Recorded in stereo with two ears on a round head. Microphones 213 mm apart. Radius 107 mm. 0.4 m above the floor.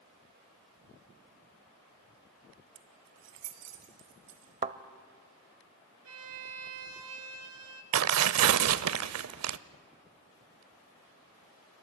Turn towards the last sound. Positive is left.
turn(degrees=-70)  # may be behind; listen again after turning